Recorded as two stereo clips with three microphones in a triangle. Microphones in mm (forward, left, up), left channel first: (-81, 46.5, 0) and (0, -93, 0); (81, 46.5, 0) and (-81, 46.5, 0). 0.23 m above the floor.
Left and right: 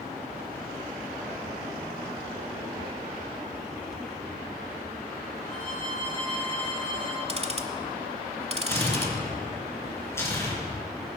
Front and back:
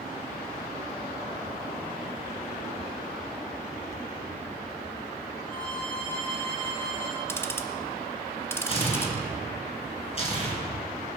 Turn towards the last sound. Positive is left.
turn(degrees=50)